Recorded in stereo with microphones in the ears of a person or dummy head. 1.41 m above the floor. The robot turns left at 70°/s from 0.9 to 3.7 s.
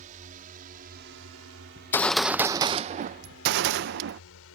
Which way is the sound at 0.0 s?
45° right (ahead or behind).